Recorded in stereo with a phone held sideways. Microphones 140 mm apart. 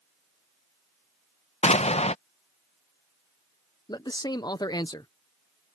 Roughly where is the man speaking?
Left.